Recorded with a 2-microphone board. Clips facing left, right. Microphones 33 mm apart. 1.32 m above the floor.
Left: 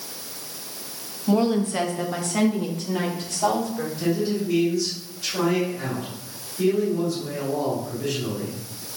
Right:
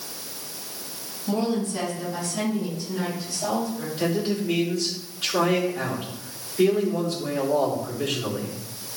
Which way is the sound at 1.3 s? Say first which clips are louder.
Left 4 dB; 20° left (ahead or behind).